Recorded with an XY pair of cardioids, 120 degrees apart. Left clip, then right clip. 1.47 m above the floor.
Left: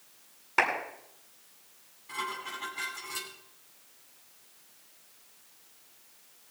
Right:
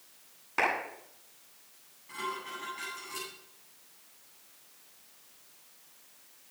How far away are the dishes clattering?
About 9 m.